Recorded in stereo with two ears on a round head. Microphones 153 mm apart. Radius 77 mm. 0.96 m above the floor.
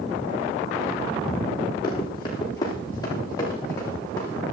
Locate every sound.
1.8 s running footsteps: 20° left (ahead or behind), 9.5 m; by 4.4 s 15° left (ahead or behind), 10 m